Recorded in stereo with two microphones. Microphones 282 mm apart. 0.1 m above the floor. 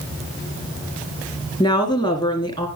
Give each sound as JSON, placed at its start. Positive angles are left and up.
{"t": 1.6, "sound": "a woman speaking", "side_deg": 15, "distance_m": 1.7}